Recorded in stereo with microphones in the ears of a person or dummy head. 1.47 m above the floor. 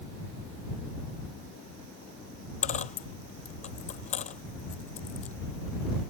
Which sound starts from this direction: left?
A dropped coin, at 2.6 s.